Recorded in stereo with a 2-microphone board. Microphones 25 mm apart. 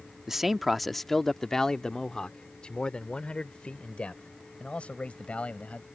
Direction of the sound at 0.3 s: 10° right (ahead or behind).